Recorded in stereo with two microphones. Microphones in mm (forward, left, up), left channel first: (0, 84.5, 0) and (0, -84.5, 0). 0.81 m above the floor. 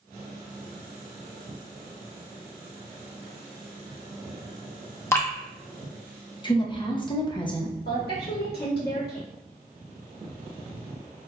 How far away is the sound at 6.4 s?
About 0.5 m.